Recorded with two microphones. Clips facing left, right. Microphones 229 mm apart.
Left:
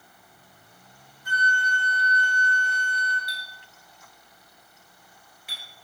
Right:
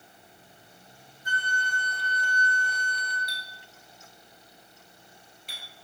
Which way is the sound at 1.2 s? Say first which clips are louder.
Left 4 dB; 25° right (ahead or behind).